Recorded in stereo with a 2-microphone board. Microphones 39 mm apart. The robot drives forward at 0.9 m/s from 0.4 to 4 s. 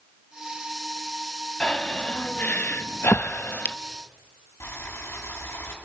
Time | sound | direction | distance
1.6 | breathing | 25° left (ahead or behind) | 1.5 m
4.6 | boiling | 85° left | 7 m